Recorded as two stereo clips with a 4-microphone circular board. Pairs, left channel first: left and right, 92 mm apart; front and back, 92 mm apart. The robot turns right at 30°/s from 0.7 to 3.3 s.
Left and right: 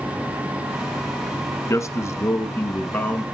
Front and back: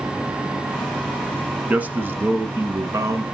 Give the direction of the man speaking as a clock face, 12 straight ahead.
8 o'clock.